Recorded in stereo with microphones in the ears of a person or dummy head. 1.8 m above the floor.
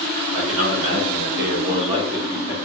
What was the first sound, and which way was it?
A man speaking, 80° right.